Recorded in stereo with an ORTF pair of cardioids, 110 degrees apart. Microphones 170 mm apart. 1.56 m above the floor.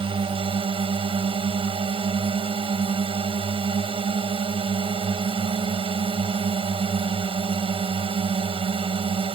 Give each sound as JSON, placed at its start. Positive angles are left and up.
{"t": 0.0, "sound": "a drone", "azimuth_deg": -30}